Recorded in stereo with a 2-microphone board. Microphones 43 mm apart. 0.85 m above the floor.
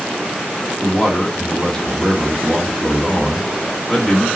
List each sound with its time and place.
0.8 s a man speaking: 15° left (ahead or behind), 1.4 m